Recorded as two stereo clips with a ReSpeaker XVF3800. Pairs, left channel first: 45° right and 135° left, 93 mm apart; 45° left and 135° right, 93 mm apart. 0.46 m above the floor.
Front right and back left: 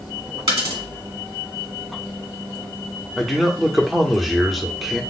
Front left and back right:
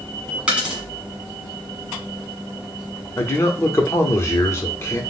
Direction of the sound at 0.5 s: 145° left.